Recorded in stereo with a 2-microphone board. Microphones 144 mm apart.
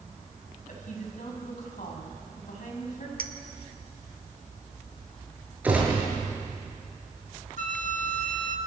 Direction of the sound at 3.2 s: 80° right.